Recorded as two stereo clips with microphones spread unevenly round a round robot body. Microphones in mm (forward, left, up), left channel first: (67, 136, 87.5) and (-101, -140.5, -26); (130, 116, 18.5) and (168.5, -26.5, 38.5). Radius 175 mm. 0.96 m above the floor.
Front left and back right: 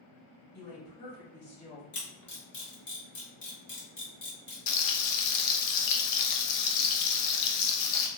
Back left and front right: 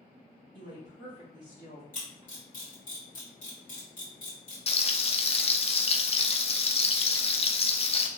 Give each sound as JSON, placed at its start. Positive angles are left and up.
{"t": 0.5, "sound": "a woman speaking", "azimuth_deg": 110, "distance_m": 1.8}
{"t": 1.9, "sound": "a camera shutter", "azimuth_deg": 125, "distance_m": 1.6}
{"t": 4.7, "sound": "frying", "azimuth_deg": 50, "distance_m": 0.5}